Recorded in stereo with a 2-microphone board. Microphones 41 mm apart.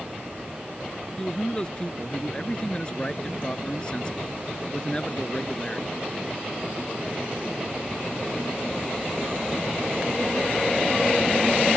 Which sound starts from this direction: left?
A man speaking, at 1.2 s.